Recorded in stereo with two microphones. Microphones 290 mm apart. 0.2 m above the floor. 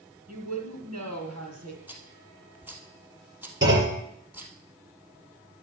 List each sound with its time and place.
0.3 s a woman speaking: 70° right (ahead or behind), 4 m
1.9 s a rattle: 5° right (ahead or behind), 2 m
3.6 s a clunk: 40° right (ahead or behind), 5.5 m